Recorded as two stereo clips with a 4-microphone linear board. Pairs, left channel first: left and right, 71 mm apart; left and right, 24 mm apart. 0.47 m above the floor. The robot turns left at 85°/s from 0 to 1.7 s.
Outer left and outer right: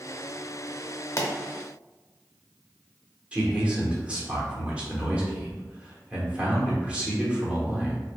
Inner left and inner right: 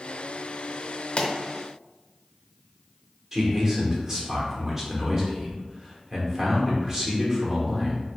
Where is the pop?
45° left (ahead or behind), 0.6 m; by 1.3 s 35° left (ahead or behind), 0.6 m.